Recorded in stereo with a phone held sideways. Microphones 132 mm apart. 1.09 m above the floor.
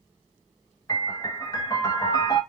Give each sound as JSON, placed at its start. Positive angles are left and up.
{"t": 0.9, "sound": "a piano", "side_deg": 30, "distance_m": 0.7}